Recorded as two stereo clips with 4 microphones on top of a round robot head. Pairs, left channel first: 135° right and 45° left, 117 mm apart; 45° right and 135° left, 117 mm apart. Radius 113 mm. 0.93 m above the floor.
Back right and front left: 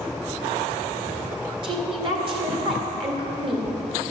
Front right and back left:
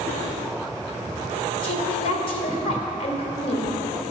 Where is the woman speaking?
5° right, 1.8 m.